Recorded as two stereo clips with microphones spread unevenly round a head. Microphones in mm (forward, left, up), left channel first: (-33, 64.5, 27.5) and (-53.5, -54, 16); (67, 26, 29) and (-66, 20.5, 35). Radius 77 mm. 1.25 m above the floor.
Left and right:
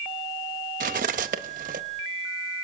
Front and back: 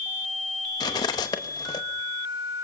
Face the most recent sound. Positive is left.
turn(degrees=-65)